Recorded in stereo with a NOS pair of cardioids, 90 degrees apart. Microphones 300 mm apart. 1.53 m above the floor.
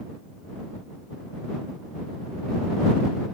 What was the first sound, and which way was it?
Only background noise.